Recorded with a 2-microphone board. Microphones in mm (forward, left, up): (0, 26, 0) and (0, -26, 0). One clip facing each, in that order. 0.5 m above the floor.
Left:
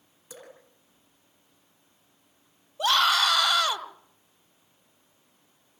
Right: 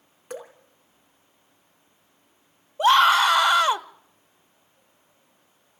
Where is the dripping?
60° right (ahead or behind), 4.5 m.